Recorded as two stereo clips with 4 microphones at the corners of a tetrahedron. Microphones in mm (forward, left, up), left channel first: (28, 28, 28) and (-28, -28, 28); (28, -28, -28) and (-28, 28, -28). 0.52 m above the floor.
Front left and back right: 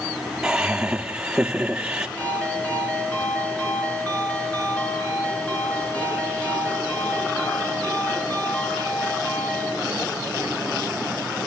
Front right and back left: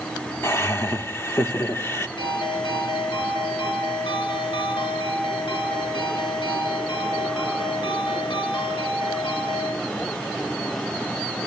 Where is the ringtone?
30° right, 5.5 m.